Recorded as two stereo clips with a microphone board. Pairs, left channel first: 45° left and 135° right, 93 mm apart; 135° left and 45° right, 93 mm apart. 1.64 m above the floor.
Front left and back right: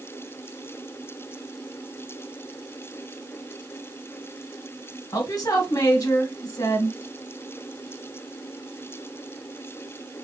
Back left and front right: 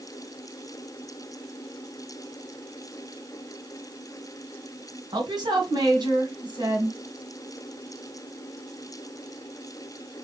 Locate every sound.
5.1 s a woman speaking: 5° right, 1.7 m